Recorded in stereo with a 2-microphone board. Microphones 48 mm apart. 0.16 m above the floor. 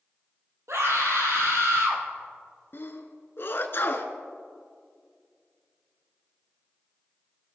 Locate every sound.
0.7 s a scream: 75° right (ahead or behind), 4.5 m
2.7 s a sneeze: 50° left (ahead or behind), 1.5 m